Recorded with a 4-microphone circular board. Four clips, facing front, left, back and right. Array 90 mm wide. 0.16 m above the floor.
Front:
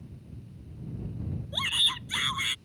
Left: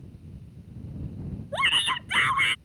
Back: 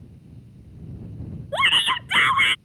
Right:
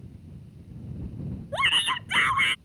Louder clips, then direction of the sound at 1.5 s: Even, back 15 dB; straight behind.